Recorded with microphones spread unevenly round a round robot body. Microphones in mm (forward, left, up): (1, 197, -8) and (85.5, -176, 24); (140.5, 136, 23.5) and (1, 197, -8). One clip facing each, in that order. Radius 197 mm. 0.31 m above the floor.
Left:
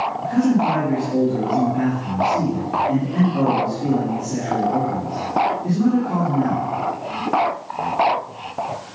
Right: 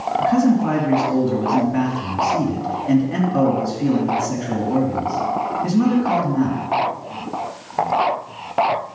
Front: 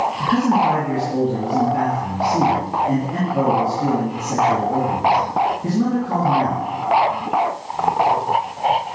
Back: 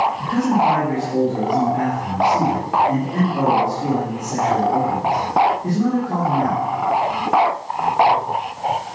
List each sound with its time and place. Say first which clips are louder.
0.2 s a man speaking: right 1 dB, front 3 dB; 75° right, 2.5 m